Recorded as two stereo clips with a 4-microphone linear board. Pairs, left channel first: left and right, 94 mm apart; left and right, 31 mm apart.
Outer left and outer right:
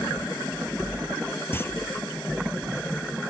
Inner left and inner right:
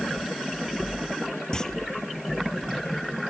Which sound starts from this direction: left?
A clunk, at 1.5 s.